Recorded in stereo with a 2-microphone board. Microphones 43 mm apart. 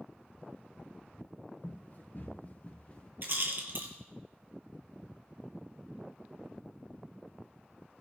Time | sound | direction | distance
1.6 | running footsteps | 50° left (ahead or behind) | 3 m
3.2 | a rattle | 55° right (ahead or behind) | 2 m